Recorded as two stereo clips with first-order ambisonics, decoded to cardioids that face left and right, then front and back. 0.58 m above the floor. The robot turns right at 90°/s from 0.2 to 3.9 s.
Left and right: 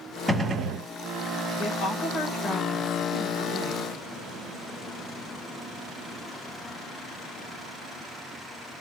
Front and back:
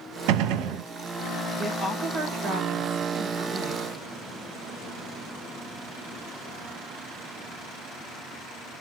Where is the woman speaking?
85° left, 1.7 m; by 4.0 s 65° right, 1.7 m.